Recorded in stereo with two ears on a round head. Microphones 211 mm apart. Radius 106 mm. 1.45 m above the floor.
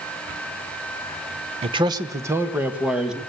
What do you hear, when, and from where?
1.6 s a man speaking: 25° right (ahead or behind), 0.9 m; by 3.2 s 5° right (ahead or behind), 1.9 m